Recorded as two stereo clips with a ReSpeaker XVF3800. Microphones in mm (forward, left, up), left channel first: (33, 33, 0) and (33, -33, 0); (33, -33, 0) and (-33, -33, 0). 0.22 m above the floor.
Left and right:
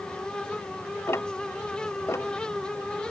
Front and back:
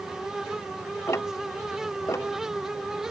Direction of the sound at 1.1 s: 45° left.